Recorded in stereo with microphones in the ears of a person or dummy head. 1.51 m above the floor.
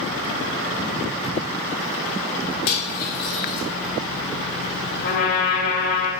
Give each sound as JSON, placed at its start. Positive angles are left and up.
{"t": 2.7, "sound": "cutlery clinking", "side_deg": 55, "distance_m": 1.1}
{"t": 5.0, "sound": "a trumpet", "side_deg": 50, "distance_m": 0.8}